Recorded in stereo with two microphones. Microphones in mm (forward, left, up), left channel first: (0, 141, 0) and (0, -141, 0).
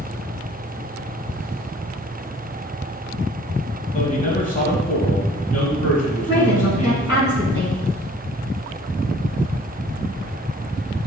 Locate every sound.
3.9 s a man speaking: 30° left (ahead or behind), 1.6 m
6.3 s a woman speaking: 10° right (ahead or behind), 2.5 m